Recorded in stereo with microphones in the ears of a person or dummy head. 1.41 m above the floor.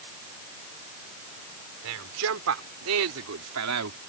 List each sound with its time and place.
1.8 s a man speaking: 70° right (ahead or behind); by 4.0 s 80° right